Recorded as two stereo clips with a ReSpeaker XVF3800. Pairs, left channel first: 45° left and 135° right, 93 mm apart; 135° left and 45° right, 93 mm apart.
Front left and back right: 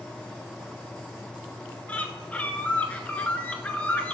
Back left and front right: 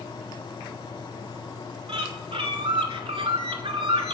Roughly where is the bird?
Ahead right.